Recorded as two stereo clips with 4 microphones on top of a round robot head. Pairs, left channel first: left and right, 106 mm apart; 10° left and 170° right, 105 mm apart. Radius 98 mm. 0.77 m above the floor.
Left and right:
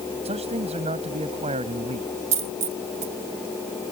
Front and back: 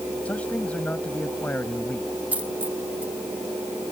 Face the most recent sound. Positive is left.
turn(degrees=-90)